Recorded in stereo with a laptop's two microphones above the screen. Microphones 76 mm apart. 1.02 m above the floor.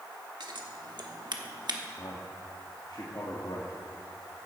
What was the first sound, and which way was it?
Scissors, 70° right (ahead or behind).